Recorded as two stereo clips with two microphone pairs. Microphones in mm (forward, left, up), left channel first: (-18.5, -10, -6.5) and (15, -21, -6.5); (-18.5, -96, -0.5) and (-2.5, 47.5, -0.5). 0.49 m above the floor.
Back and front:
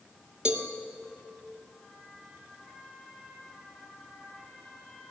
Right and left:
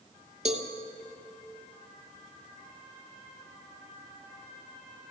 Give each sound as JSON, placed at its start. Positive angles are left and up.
{"t": 0.5, "sound": "a cowbell", "azimuth_deg": 45, "distance_m": 1.9}